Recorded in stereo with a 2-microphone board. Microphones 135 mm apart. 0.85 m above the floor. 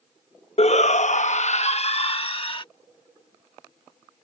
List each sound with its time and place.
0.6 s a shout: 50° left (ahead or behind); by 2.6 s 40° left (ahead or behind)